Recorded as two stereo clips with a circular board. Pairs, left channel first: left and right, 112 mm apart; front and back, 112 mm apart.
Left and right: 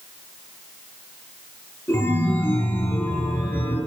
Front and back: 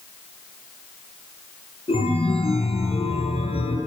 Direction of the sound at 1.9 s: 20° left.